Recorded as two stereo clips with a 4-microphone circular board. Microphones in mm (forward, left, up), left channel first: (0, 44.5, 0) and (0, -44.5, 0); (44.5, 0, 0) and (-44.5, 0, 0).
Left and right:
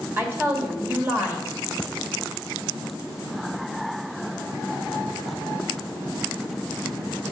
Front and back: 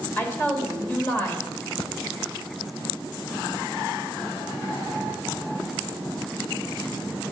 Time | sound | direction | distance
0.2 | a woman speaking | 50° right | 1.2 m